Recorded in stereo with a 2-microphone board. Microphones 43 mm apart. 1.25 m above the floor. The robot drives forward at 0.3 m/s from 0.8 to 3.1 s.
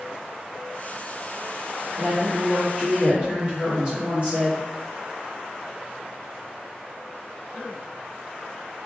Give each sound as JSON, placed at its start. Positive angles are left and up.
{"t": 2.0, "sound": "a woman speaking", "side_deg": -35, "distance_m": 1.6}